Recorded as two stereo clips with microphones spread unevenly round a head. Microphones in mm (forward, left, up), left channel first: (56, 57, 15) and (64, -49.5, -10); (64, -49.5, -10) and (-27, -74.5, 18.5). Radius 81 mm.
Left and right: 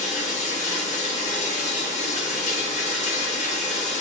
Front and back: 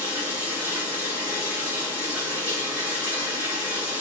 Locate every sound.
0.0 s running water: 110° left, 0.7 m